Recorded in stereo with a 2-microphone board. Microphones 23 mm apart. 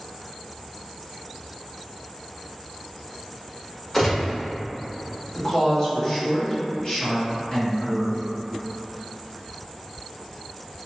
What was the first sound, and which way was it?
A gunshot, 20° left (ahead or behind).